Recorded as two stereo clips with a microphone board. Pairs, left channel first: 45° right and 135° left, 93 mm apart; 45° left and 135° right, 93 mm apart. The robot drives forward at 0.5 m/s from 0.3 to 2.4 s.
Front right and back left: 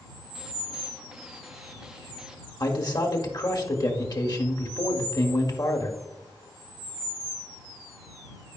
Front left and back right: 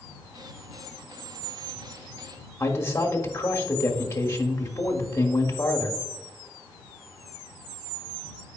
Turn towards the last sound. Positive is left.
turn(degrees=-10)